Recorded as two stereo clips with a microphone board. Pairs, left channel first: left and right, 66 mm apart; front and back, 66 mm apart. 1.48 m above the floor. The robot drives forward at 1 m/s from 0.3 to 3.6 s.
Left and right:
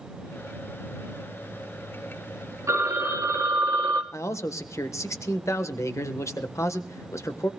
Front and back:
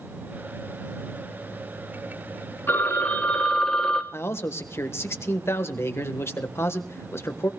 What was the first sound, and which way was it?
A phone ringing, 50° right.